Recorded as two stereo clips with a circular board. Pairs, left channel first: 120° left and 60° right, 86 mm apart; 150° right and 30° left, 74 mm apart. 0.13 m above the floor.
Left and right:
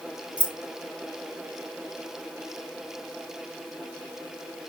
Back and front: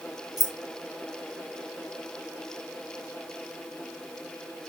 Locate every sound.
0.4 s keys jangling: 15° left, 2.0 m